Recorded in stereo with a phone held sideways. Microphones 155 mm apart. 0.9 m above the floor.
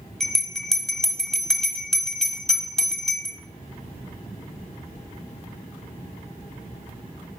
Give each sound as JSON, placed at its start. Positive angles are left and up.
{"t": 0.2, "sound": "a bell", "side_deg": 5, "distance_m": 1.5}